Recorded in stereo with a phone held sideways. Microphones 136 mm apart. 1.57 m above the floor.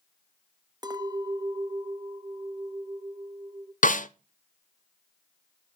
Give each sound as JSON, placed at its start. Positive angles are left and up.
{"t": 0.8, "sound": "a clink", "side_deg": -30, "distance_m": 0.8}
{"t": 3.8, "sound": "a snare drum", "side_deg": 70, "distance_m": 0.5}